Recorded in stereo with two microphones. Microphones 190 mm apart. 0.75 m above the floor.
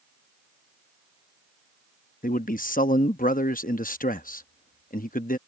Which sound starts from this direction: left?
A man speaking, at 2.2 s.